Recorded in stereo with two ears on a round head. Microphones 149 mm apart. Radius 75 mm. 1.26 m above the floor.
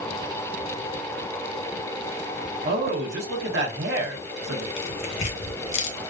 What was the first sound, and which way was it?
A man speaking, 70° right (ahead or behind).